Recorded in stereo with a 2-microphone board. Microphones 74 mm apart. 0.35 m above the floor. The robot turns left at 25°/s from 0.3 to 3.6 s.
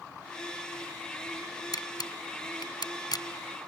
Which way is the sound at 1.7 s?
60° left (ahead or behind).